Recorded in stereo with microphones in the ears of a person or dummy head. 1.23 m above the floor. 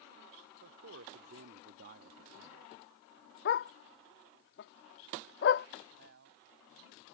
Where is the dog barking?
45° left (ahead or behind).